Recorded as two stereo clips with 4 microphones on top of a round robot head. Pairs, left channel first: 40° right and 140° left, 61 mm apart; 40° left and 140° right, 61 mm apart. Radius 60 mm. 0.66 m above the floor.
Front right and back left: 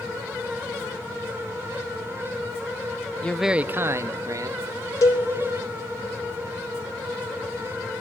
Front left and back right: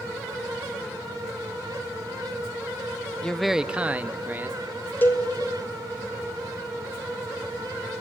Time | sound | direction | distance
3.2 | a man speaking | 10° right | 0.6 m
5.0 | a cowbell | 15° right | 2.5 m